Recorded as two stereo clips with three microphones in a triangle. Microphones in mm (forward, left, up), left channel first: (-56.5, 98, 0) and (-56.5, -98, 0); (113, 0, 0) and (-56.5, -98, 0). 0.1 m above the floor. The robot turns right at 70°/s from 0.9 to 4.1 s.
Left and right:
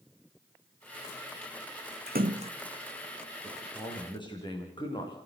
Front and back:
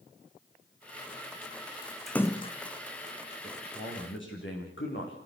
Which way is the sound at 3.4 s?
20° right.